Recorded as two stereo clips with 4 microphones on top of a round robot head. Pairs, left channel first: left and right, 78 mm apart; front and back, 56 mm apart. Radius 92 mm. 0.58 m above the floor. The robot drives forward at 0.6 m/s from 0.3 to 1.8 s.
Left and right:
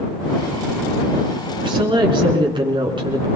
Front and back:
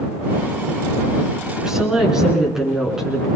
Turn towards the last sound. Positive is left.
turn(degrees=-100)